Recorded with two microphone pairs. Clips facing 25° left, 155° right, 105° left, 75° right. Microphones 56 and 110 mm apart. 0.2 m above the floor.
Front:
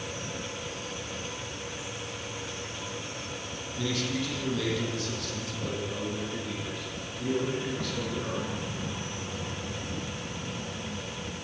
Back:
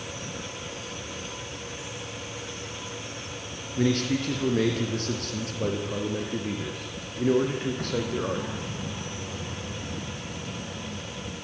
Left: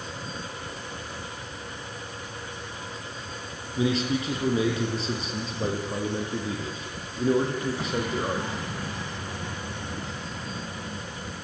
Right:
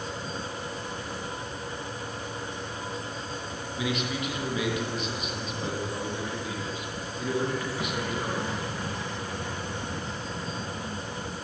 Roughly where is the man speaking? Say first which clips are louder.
Back 7 dB, left 6 dB; behind.